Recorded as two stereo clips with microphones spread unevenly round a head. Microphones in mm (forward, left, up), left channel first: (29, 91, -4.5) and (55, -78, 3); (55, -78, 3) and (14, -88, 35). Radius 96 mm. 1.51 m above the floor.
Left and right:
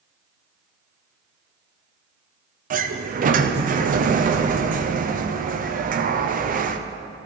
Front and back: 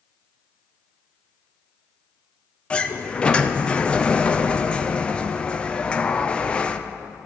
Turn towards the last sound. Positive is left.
turn(degrees=-40)